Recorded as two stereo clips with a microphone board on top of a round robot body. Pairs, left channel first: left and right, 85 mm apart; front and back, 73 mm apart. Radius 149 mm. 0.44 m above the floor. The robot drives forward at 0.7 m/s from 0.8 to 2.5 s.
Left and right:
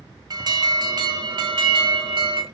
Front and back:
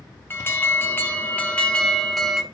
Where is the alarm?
60° right, 2 m; by 2.4 s 95° right, 1.9 m.